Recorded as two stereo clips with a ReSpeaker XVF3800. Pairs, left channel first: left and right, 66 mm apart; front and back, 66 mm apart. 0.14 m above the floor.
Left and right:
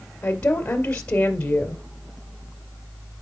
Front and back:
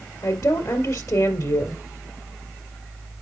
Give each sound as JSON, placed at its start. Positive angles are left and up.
{"t": 0.2, "sound": "a woman speaking", "azimuth_deg": 25, "distance_m": 2.0}